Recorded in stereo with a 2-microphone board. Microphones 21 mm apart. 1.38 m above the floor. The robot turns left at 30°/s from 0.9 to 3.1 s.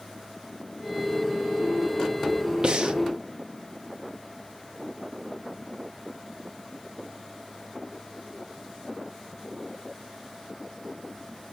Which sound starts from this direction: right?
Breathing, at 2.6 s.